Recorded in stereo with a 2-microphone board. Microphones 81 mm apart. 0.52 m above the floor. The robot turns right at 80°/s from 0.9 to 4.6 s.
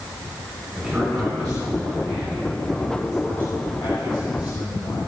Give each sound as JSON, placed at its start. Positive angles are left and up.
{"t": 0.8, "sound": "a man speaking", "azimuth_deg": -170, "distance_m": 6.0}